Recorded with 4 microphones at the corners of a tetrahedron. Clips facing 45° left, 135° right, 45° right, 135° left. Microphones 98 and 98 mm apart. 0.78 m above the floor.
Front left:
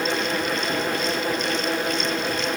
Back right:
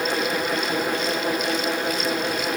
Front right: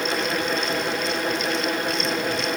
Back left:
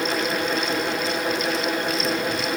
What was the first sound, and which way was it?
Only background noise.